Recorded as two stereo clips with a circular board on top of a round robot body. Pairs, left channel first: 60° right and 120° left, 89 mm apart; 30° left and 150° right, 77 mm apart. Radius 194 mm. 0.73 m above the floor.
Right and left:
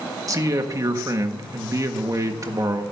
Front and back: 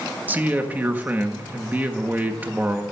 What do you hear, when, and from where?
0.3 s a man speaking: 155° left, 1.5 m